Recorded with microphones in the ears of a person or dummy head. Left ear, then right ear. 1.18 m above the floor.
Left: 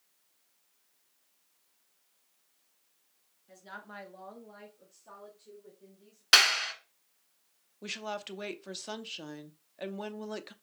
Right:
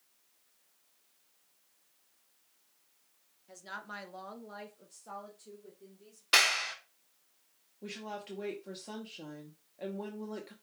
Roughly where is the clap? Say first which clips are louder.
Left 4 dB; left.